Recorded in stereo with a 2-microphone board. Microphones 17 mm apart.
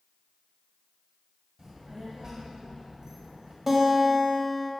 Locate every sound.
1.6 s a child speaking: 40° right (ahead or behind), 1.7 m
3.7 s a guitar: 15° right (ahead or behind), 1.5 m